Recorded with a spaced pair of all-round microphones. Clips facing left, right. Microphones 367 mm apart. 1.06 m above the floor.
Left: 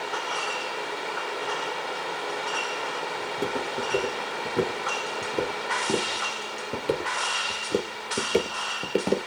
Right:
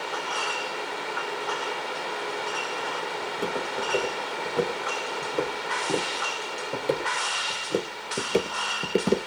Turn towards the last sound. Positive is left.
turn(degrees=-15)  # may be behind; listen again after turning